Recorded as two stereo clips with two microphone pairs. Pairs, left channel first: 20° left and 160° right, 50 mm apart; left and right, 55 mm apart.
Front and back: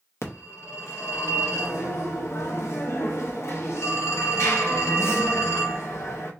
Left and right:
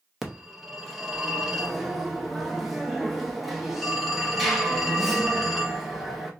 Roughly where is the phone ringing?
Ahead.